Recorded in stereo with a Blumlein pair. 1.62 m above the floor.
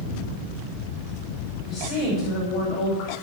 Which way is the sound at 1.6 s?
35° left.